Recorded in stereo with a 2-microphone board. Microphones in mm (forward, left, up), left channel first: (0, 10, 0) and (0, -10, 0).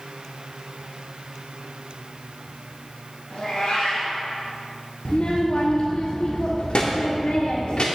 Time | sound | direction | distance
3.3 | a cat meowing | 75° left (ahead or behind) | 2.5 m
5.0 | a child speaking | 70° left (ahead or behind) | 0.6 m